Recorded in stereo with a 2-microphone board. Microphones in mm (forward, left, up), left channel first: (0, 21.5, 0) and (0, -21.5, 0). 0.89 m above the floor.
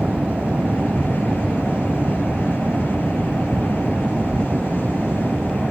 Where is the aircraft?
35° right (ahead or behind); by 5.7 s 30° right (ahead or behind).